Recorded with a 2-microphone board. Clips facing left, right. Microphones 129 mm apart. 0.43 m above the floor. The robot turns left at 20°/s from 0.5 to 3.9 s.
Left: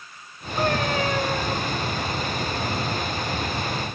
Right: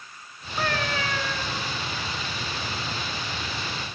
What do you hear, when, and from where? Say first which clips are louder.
0.6 s a cat meowing: left 5 dB; 20° left (ahead or behind), 2.5 m; by 1.6 s 40° left (ahead or behind), 2.5 m